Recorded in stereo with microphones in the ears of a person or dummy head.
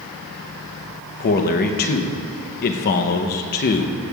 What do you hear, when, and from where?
1.2 s a man speaking: 45° left (ahead or behind), 0.7 m